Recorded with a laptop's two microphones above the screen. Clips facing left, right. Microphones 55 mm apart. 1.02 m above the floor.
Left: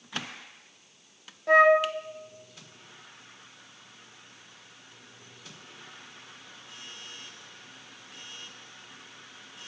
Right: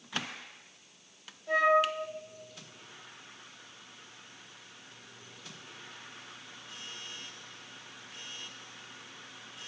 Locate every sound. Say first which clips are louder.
1.5 s a flute: left 6 dB; 65° left (ahead or behind), 1.3 m